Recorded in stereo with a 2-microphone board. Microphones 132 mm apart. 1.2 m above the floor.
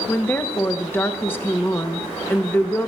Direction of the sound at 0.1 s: 15° left (ahead or behind).